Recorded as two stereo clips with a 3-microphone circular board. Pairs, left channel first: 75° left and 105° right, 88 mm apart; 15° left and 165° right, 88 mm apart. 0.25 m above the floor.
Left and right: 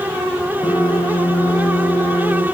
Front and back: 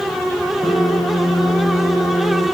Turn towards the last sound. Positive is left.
turn(degrees=50)